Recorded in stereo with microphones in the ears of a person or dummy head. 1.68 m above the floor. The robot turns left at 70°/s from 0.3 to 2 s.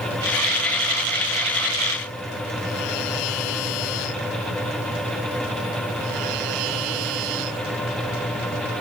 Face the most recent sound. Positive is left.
No sound to turn to.